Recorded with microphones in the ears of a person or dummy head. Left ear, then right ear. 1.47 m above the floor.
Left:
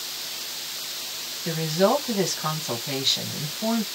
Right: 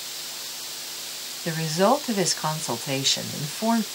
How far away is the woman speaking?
About 0.9 m.